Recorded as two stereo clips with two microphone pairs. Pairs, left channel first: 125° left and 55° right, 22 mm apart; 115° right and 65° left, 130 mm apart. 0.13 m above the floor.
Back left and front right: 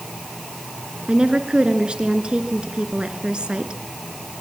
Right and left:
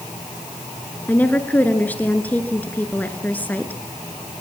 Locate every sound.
1.1 s a woman speaking: 45° right, 1.8 m